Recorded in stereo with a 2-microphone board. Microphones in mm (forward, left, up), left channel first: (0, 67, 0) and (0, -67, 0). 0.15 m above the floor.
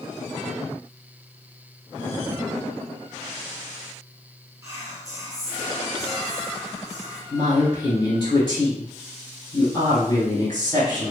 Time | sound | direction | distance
4.6 | whispering | 25° right (ahead or behind) | 1.3 m
7.3 | a woman speaking | 30° left (ahead or behind) | 1.8 m